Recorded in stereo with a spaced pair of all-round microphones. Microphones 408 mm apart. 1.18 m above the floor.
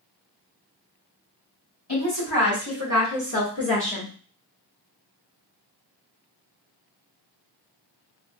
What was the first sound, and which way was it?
A woman speaking, 65° left (ahead or behind).